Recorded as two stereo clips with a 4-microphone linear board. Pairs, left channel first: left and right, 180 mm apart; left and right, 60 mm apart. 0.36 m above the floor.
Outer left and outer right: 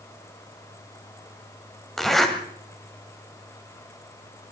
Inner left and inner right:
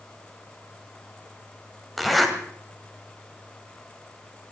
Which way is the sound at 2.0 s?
Centre (ahead or behind).